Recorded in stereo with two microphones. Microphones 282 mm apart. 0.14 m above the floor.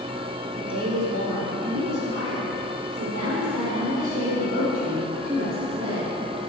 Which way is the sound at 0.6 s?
60° right (ahead or behind).